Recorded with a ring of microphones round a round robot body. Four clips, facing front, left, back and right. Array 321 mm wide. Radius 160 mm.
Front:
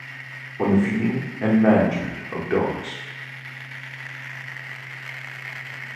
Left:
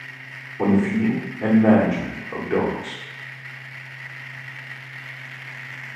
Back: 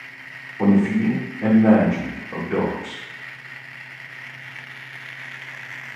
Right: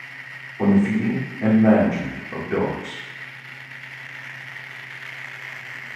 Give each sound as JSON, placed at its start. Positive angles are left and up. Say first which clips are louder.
{"t": 0.6, "sound": "a man speaking", "louder": "right 1 dB, back 2 dB", "azimuth_deg": 25, "distance_m": 0.9}